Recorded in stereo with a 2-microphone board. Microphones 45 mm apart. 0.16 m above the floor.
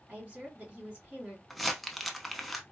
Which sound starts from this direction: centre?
Crumpling, at 1.5 s.